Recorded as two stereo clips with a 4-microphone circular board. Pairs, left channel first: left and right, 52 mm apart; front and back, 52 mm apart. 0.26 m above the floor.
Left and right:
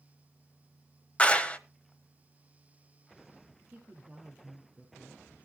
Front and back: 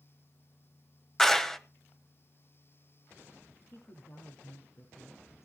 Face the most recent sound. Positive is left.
turn(degrees=-30)